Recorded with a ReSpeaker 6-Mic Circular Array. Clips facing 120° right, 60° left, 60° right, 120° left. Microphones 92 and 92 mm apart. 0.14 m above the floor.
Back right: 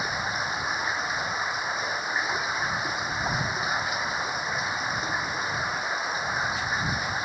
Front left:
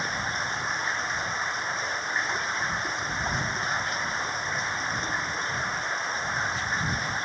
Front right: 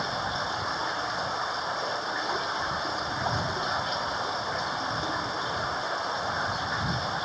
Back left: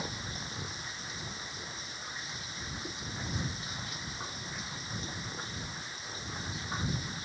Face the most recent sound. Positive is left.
turn(degrees=-35)